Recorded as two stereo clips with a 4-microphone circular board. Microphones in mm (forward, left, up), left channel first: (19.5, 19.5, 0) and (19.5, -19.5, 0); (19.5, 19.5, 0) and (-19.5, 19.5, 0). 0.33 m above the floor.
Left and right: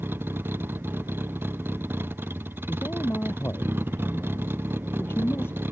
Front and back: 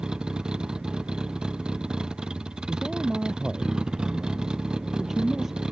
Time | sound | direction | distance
0.0 | a vehicle | 110° right | ?
2.7 | a man speaking | 100° left | ?